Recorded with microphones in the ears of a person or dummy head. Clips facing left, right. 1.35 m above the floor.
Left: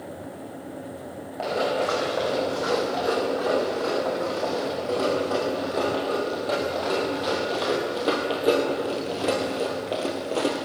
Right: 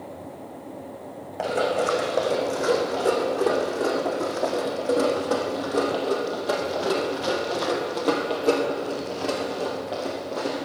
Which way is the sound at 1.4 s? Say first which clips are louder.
Right 1 dB; 35° right (ahead or behind).